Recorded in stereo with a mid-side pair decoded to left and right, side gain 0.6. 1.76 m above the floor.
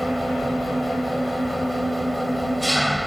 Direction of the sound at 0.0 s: Straight ahead.